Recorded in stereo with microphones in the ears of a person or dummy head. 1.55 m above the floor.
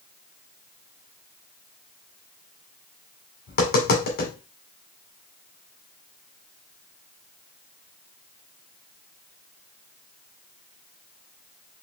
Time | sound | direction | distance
3.5 | tapping | 55° left (ahead or behind) | 1.7 m